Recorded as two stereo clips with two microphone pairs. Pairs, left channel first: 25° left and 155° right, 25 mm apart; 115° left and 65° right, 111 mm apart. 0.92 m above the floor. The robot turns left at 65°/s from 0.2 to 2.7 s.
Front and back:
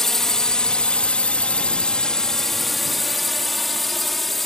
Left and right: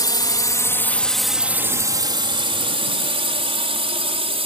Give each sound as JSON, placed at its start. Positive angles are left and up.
{"t": 0.0, "sound": "a drone", "azimuth_deg": 85}